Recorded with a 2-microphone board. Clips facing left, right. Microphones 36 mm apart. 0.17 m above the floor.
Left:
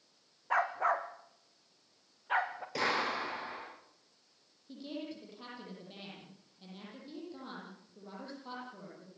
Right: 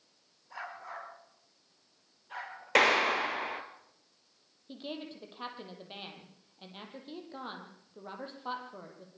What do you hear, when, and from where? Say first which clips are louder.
0.5 s a dog barking: left 12 dB; 60° left (ahead or behind), 3 m; by 2.6 s 40° left (ahead or behind), 4.5 m
2.8 s a clap: right 8 dB; 65° right (ahead or behind), 3.5 m
4.7 s a woman speaking: right 1 dB; 40° right (ahead or behind), 7.5 m